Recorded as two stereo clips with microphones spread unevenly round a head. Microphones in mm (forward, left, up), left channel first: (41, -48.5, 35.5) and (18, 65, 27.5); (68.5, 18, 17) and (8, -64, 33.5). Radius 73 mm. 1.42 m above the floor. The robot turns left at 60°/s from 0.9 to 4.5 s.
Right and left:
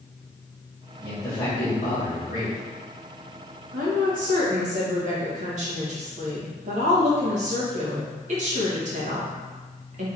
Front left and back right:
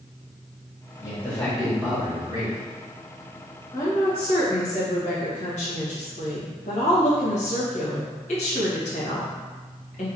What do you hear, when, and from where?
1.0 s a man speaking: 10° left, 1.8 m; by 2.6 s 85° right, 1.8 m
3.7 s a woman speaking: 125° left, 1.5 m; by 10.1 s 80° left, 1.5 m